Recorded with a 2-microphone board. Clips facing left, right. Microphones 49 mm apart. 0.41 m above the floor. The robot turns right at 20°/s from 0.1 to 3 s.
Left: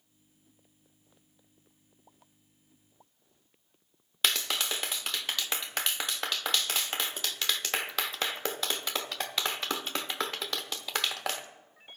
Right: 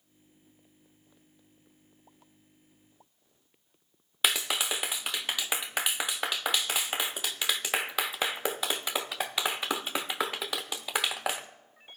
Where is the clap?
10° right (ahead or behind), 0.5 m.